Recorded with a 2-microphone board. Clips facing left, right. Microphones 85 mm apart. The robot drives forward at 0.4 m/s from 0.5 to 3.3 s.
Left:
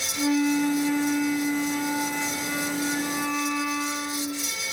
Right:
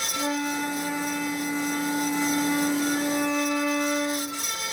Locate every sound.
0.2 s a flute: 15° right (ahead or behind), 0.5 m; by 4.5 s 5° right (ahead or behind), 1.3 m